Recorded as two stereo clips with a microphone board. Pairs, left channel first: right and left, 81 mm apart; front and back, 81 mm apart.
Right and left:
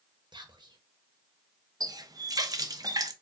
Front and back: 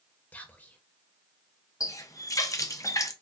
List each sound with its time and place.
0.3 s whispering: 70° left, 1.1 m
1.8 s a running tap: 50° left, 0.5 m